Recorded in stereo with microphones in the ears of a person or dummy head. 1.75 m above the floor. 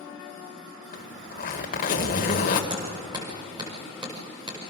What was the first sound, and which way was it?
A zipper, 40° left (ahead or behind).